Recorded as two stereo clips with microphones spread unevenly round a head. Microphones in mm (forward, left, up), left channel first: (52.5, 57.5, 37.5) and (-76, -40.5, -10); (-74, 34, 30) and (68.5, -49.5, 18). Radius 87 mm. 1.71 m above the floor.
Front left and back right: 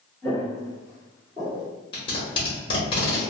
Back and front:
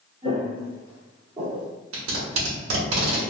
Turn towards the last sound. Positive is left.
turn(degrees=-20)